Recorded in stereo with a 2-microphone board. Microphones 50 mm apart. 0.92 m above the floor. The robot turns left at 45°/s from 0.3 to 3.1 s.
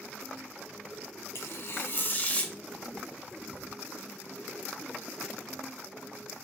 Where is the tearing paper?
80° left, 0.5 m; by 2.5 s 25° left, 0.5 m.